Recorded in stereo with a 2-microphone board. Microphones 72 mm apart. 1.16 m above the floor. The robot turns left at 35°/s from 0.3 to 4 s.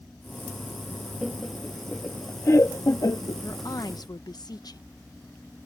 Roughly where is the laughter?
Centre.